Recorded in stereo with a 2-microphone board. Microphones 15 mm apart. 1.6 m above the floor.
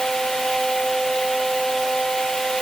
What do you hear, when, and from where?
Only background noise.